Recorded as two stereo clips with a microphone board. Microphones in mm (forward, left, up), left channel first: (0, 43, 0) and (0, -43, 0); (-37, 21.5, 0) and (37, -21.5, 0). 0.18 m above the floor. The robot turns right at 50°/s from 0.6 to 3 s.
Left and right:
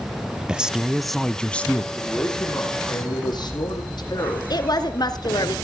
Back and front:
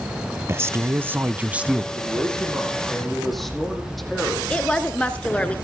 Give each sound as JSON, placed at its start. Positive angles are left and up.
{"t": 0.5, "sound": "a man speaking", "azimuth_deg": -20, "distance_m": 1.4}
{"t": 1.9, "sound": "a man speaking", "azimuth_deg": 10, "distance_m": 7.5}
{"t": 4.5, "sound": "a woman speaking", "azimuth_deg": 75, "distance_m": 2.5}